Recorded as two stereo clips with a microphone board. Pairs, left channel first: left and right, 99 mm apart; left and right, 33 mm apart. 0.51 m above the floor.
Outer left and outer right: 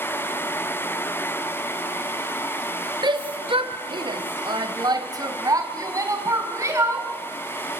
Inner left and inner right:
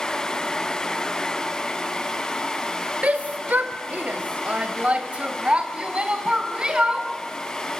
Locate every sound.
3.0 s a shout: 50° right (ahead or behind), 1.3 m; by 7.1 s 30° right (ahead or behind), 5 m